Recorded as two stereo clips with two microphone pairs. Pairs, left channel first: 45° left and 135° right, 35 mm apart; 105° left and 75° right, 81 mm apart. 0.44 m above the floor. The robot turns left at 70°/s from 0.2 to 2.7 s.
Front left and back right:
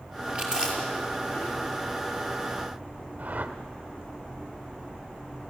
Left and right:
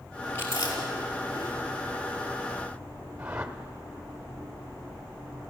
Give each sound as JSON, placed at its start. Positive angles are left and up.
{"t": 0.3, "sound": "chewing", "azimuth_deg": 170, "distance_m": 5.5}
{"t": 3.2, "sound": "a whoosh", "azimuth_deg": -140, "distance_m": 1.4}